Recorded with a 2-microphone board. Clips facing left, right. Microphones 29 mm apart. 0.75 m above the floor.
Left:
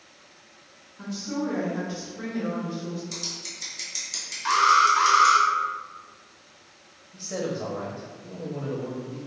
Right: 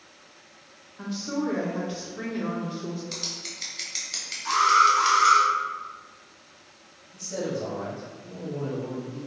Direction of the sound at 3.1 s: 30° right (ahead or behind).